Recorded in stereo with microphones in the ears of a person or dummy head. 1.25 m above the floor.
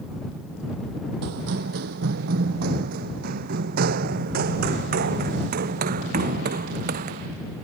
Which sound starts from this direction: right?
Running footsteps, at 1.2 s.